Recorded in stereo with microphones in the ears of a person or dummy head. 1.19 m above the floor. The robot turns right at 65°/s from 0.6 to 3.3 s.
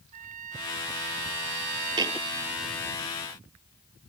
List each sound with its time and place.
0.1 s a trumpet: 135° right; by 3.0 s 20° left
2.0 s a thud: 25° right (ahead or behind); by 2.3 s 5° right (ahead or behind)